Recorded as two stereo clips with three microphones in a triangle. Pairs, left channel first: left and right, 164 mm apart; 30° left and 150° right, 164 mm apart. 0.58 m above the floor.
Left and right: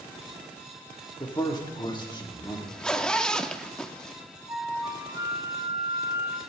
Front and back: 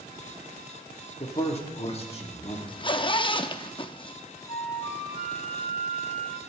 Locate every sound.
1.2 s a man speaking: 45° left, 1.5 m
2.7 s a zipper: 10° left, 0.5 m
4.5 s a flute: 20° right, 1.1 m